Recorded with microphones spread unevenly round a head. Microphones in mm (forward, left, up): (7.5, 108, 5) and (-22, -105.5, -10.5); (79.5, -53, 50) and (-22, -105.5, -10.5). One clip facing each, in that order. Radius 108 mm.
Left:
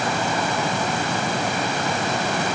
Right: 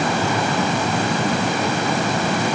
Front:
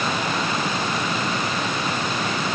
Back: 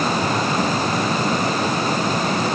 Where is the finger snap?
I don't hear a finger snap.